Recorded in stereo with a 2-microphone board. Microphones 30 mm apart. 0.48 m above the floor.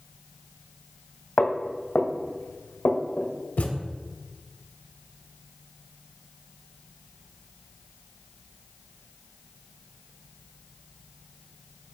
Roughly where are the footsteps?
Left.